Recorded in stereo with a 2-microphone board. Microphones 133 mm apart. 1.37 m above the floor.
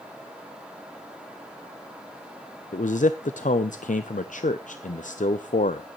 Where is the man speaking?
70° left (ahead or behind), 0.6 m.